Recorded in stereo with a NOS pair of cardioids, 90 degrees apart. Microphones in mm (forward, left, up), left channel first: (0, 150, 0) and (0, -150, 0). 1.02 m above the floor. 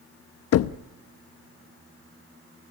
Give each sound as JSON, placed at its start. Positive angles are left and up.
{"t": 0.5, "sound": "knocking", "azimuth_deg": 55, "distance_m": 0.6}